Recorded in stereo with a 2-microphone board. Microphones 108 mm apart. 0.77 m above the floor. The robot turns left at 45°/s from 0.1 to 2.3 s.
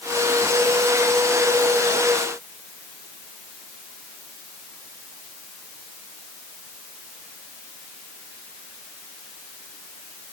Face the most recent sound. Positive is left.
No sound to turn to.